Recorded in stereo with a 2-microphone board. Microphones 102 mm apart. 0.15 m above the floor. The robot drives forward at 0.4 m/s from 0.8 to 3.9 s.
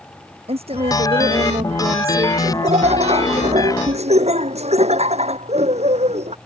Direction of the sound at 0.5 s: 65° right (ahead or behind).